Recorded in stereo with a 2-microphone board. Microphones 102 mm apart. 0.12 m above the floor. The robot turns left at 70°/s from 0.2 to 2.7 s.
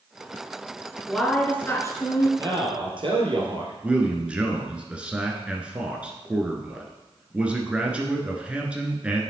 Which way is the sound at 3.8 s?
10° right (ahead or behind).